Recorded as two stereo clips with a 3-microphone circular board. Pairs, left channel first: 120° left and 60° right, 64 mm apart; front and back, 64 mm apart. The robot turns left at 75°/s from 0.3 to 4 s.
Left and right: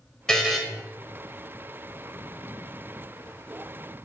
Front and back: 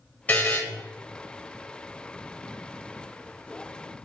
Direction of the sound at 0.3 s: 45° left.